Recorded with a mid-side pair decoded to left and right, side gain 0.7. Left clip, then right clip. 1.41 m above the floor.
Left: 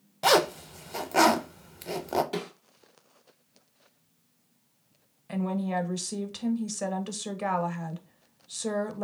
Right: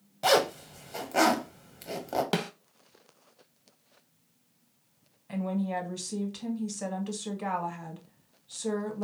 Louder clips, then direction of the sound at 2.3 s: Right 3 dB; 55° right.